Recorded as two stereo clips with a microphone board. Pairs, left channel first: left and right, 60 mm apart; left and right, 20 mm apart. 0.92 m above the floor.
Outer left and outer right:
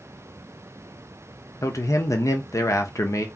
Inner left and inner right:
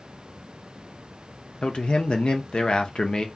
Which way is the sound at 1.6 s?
60° left (ahead or behind).